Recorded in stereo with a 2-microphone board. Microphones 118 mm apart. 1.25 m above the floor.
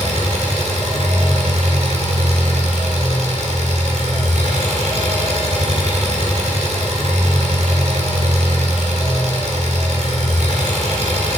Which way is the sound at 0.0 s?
75° right (ahead or behind).